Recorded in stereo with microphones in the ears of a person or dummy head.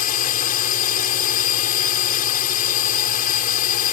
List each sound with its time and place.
0.0 s a drone: 45° left (ahead or behind)